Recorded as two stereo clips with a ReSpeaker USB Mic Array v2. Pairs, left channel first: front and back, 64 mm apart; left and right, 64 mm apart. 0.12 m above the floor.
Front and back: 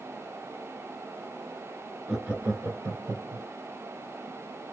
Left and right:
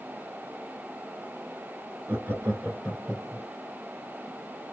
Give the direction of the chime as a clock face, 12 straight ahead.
I don't hear a chime.